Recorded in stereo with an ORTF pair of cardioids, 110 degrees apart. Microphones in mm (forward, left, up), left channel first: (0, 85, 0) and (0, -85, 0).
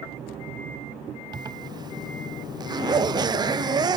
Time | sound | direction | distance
1.3 | a zipper | 25° right | ?